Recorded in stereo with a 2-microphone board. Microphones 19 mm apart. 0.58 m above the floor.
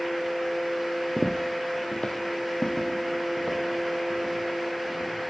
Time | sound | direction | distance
1.2 | footsteps | 15° left (ahead or behind) | 0.5 m